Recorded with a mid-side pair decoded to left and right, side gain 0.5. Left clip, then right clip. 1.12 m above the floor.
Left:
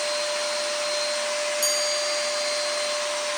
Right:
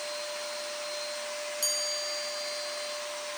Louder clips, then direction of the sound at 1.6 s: Left 4 dB; 25° left.